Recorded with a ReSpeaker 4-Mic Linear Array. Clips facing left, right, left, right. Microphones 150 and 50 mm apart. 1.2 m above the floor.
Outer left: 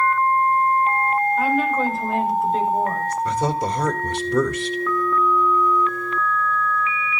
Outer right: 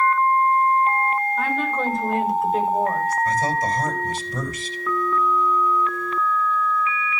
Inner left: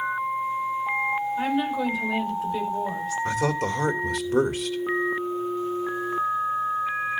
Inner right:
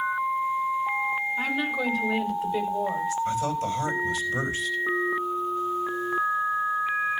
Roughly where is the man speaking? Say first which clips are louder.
Outer left 1 dB, inner left 2 dB; left.